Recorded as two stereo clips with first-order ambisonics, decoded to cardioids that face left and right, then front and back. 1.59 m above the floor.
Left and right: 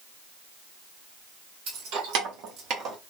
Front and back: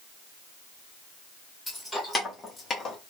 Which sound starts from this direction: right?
Keys jangling, at 1.7 s.